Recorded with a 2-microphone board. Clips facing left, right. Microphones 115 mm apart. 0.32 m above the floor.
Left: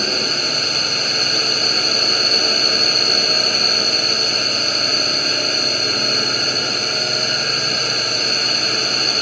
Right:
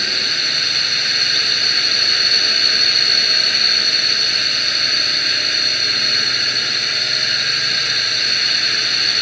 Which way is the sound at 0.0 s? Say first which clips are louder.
Left 5 dB; 35° left (ahead or behind).